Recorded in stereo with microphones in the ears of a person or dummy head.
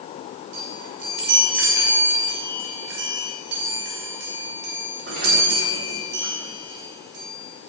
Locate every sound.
0.5 s a chime: 70° right (ahead or behind), 3 m